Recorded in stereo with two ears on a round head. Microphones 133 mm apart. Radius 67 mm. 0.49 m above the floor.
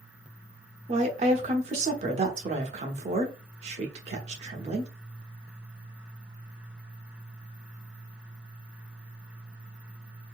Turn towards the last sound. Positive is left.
turn(degrees=-45)  # may be behind; listen again after turning